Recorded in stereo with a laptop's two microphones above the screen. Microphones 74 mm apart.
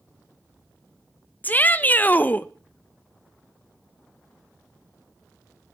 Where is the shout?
25° left (ahead or behind), 0.8 m.